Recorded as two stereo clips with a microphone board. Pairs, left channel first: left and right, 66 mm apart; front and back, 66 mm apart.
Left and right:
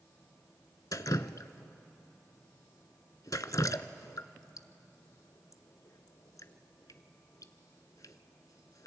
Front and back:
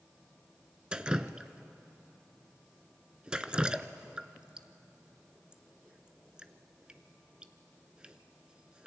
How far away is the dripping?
About 0.5 m.